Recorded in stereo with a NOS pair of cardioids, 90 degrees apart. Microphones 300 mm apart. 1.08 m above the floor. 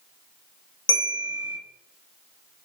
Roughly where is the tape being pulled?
No tape being pulled in this recording.